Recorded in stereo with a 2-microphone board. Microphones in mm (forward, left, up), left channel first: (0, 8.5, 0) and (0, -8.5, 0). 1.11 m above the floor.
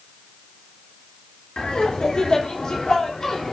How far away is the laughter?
About 3.5 m.